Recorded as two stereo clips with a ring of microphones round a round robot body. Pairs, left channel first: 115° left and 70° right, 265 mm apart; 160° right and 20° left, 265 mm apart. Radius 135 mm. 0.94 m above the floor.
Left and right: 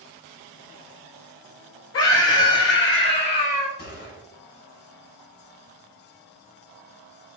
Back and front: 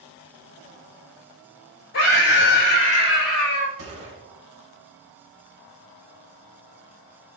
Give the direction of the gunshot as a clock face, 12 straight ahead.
10 o'clock.